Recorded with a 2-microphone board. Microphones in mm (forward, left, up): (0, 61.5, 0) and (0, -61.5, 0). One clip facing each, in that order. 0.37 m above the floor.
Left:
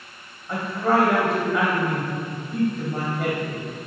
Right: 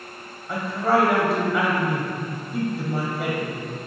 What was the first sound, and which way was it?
A woman speaking, 5° right (ahead or behind).